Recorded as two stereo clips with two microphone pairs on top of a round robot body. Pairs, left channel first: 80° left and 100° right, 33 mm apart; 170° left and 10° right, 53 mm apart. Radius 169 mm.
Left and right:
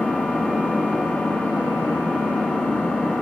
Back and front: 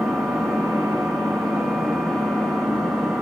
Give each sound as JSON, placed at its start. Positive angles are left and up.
{"t": 0.0, "sound": "an engine running", "azimuth_deg": 90, "distance_m": 4.5}